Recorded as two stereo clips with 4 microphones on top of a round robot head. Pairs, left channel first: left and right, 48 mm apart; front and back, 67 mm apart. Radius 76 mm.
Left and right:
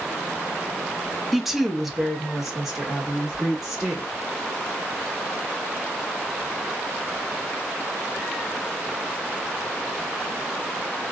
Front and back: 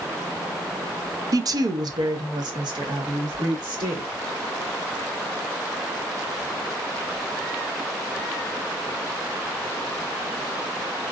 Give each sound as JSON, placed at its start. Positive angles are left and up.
{"t": 1.3, "sound": "a woman speaking", "azimuth_deg": 180, "distance_m": 0.5}